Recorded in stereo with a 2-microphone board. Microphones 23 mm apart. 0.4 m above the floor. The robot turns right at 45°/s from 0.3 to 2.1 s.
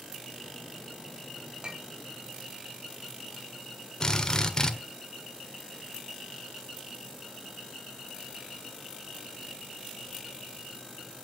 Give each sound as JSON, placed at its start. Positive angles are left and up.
{"t": 1.6, "sound": "a clink", "side_deg": -35, "distance_m": 1.6}
{"t": 4.0, "sound": "a drill", "side_deg": 30, "distance_m": 1.4}